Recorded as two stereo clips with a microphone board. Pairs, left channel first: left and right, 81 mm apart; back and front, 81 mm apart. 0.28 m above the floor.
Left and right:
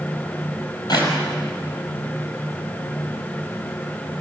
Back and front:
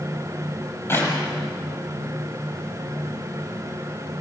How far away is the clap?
About 7 m.